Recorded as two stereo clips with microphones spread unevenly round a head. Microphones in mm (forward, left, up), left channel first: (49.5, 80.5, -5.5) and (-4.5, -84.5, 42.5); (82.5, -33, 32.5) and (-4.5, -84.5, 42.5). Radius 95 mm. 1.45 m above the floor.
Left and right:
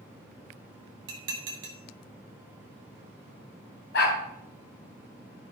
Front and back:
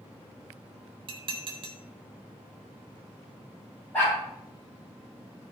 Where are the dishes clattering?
120° right, 2 m.